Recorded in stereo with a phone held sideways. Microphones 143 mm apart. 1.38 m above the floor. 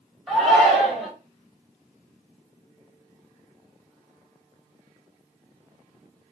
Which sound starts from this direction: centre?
A shout, at 0.3 s.